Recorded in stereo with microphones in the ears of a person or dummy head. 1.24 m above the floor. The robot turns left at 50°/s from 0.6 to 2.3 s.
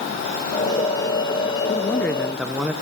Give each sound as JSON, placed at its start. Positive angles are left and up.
{"t": 1.7, "sound": "a man speaking", "azimuth_deg": 40, "distance_m": 0.6}